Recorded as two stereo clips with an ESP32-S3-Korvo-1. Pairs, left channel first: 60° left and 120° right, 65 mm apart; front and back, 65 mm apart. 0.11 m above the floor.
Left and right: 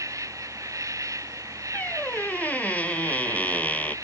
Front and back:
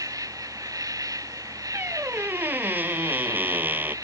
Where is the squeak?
120° left.